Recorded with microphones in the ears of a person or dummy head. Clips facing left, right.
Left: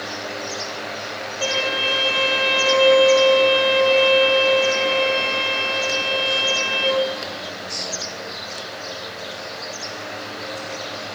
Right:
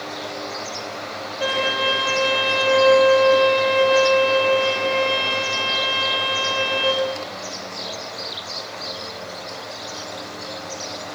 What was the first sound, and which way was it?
A violin, 10° right (ahead or behind).